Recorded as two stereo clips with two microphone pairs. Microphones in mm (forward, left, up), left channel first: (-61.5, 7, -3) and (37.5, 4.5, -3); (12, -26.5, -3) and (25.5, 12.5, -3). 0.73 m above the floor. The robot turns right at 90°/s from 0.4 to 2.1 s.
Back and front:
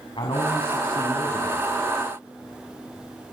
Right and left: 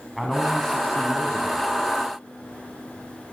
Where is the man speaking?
160° left, 5.5 m; by 1.8 s 75° right, 5.5 m.